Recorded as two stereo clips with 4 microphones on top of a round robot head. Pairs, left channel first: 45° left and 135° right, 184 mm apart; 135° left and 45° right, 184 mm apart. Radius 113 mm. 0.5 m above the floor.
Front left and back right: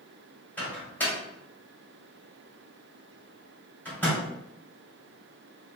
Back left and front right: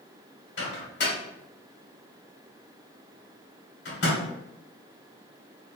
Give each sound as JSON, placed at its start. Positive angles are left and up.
{"t": 0.6, "sound": "a microwave", "azimuth_deg": 125, "distance_m": 1.5}